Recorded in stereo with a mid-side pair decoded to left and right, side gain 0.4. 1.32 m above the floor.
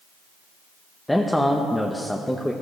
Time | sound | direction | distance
1.1 | a man speaking | 10° left | 1.0 m